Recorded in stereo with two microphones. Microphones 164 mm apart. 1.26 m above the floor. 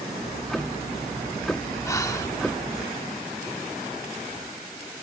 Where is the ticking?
5° left (ahead or behind).